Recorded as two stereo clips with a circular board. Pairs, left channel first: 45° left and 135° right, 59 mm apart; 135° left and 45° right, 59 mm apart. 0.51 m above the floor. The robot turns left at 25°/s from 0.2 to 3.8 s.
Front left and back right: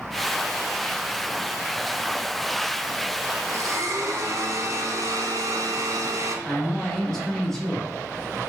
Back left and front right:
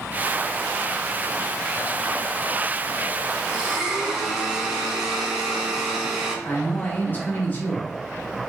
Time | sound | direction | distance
3.5 | a blender | 115° right | 0.8 m
6.5 | a man speaking | 120° left | 0.7 m